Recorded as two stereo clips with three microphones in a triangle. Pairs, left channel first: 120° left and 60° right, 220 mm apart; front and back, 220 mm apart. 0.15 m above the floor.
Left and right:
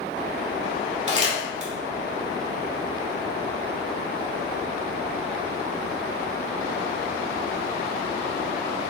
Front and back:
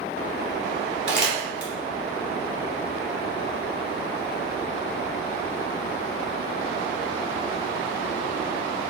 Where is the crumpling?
10° right, 1.2 m.